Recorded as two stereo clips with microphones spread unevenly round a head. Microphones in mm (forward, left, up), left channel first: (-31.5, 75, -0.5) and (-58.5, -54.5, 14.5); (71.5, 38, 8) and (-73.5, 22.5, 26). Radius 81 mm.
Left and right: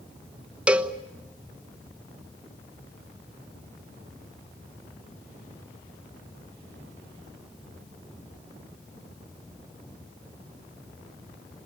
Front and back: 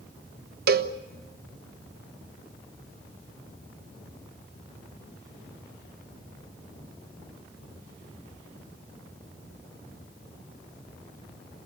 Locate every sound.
0.7 s a cowbell: straight behind, 1.1 m